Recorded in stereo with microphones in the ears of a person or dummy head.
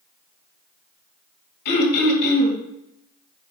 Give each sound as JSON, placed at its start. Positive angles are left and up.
{"t": 1.6, "sound": "throat clearing", "side_deg": 55, "distance_m": 1.9}